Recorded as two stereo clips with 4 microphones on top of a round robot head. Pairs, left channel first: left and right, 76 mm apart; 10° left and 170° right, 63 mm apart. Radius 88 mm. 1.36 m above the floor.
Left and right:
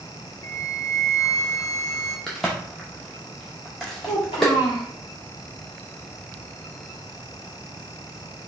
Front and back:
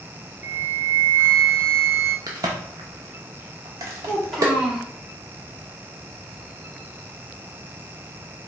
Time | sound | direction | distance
0.4 | a flute | 135° left | 0.7 m
2.3 | a crack | straight behind | 0.7 m
4.0 | a child speaking | 105° left | 2.5 m